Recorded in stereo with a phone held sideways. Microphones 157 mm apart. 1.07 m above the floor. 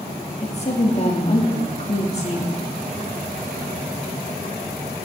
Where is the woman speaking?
40° left (ahead or behind), 2.5 m.